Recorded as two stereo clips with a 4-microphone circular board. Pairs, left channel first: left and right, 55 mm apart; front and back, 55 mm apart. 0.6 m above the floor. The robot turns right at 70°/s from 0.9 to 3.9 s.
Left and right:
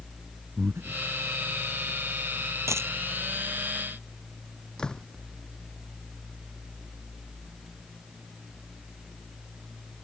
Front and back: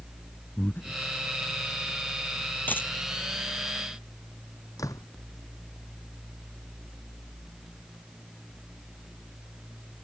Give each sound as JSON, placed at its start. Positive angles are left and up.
{"t": 0.6, "sound": "breathing", "azimuth_deg": -50}
{"t": 2.7, "sound": "a dropped coin", "azimuth_deg": -60}
{"t": 4.8, "sound": "a door slam", "azimuth_deg": 10}